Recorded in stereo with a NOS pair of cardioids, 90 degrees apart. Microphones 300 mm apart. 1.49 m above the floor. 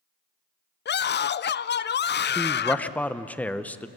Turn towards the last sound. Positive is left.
turn(degrees=5)